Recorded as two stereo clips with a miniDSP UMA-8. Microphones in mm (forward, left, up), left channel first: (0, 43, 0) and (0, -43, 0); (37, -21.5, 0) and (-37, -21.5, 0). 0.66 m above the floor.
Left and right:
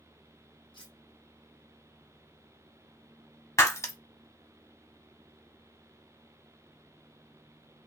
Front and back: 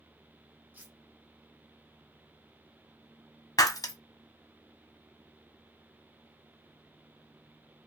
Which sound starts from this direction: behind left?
Cutlery clinking, at 0.7 s.